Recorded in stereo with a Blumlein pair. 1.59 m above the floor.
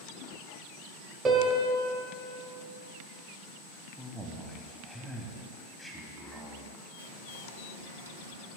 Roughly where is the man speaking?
Ahead.